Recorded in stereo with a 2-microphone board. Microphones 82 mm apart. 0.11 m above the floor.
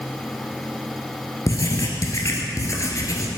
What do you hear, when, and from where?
1.5 s writing: 45° left (ahead or behind), 1.6 m